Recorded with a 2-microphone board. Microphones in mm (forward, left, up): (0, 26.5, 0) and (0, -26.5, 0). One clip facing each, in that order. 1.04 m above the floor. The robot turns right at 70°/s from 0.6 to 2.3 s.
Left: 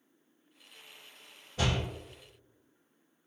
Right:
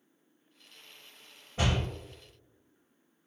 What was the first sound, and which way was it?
A door slam, 30° right (ahead or behind).